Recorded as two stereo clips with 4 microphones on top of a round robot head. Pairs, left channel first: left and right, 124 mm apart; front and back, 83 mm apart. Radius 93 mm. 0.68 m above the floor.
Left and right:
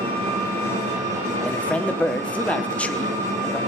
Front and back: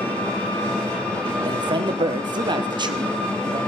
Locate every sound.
0.0 s an engine running: 60° right, 4.5 m
1.4 s a man speaking: 170° left, 1.3 m